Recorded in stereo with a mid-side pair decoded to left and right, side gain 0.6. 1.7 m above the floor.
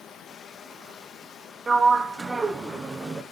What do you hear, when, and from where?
0.0 s running water: 45° left, 2.0 m
1.7 s a sliding door: 20° right, 1.1 m